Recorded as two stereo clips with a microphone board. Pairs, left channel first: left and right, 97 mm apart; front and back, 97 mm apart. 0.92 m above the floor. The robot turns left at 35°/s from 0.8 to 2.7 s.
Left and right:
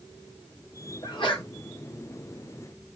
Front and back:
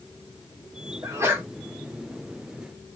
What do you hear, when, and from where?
1.0 s a sneeze: 125° left, 1.5 m; by 1.5 s 110° left, 1.5 m